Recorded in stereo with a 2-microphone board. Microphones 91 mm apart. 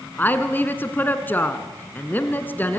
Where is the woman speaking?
20° left (ahead or behind), 1.5 m.